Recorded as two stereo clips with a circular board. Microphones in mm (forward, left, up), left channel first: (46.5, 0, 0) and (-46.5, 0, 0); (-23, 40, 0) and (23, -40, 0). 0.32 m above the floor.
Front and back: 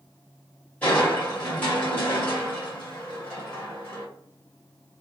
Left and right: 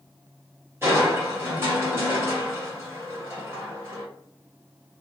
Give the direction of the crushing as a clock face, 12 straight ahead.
2 o'clock.